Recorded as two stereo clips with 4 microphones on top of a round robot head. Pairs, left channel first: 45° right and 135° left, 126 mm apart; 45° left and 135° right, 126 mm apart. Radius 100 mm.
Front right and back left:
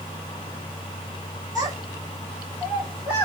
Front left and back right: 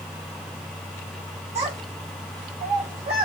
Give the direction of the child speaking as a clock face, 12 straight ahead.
6 o'clock.